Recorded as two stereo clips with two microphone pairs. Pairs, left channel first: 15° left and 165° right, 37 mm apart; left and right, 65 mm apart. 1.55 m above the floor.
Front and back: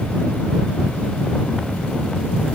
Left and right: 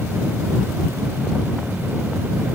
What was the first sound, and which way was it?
Only background noise.